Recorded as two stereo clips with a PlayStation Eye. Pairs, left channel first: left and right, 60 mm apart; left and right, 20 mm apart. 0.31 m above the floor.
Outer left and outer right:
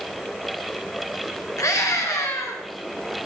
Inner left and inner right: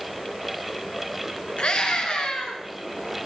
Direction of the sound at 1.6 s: 65° left (ahead or behind).